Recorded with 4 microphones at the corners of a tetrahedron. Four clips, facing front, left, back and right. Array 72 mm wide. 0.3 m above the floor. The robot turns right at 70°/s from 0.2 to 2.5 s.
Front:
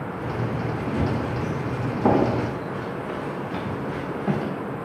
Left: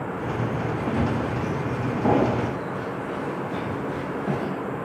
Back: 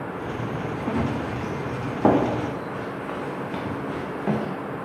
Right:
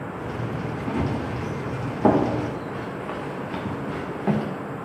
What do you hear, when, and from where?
0.9 s running footsteps: 130° left, 4.5 m; by 4.5 s 130° right, 6 m